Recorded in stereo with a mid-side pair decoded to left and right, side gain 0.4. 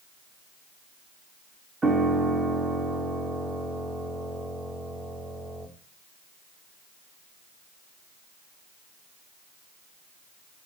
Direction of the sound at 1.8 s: 30° right.